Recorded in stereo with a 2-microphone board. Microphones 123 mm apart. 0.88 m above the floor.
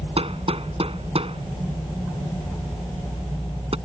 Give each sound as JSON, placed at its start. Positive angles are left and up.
{"t": 0.2, "sound": "hammering", "side_deg": -50}